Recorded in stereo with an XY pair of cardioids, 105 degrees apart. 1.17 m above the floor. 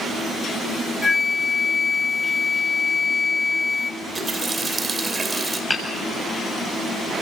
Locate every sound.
1.0 s a flute: 25° left, 0.6 m
4.0 s a running tap: 30° right, 3.5 m
5.7 s hammering: 10° left, 7 m